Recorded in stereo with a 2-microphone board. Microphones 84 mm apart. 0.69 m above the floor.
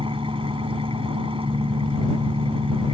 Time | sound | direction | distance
0.0 | an engine running | 85° right | ?